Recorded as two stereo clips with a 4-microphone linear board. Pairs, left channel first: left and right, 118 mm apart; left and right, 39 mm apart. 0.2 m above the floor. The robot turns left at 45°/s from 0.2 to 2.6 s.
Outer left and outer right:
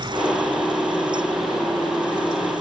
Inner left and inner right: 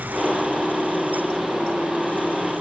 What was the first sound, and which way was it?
Only background noise.